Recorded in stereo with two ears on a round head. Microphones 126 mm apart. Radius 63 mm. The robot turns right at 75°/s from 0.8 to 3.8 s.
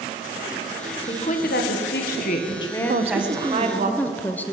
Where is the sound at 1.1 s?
30° left, 1.8 m; by 3.9 s 125° right, 1.8 m.